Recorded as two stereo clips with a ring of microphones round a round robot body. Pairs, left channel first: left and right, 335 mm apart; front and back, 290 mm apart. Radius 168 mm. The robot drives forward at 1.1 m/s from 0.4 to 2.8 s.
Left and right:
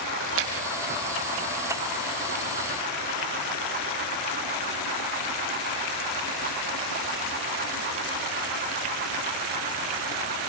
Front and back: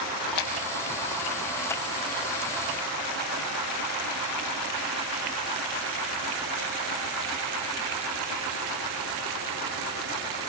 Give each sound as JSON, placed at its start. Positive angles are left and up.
{"t": 0.2, "sound": "a splash", "azimuth_deg": -35, "distance_m": 4.0}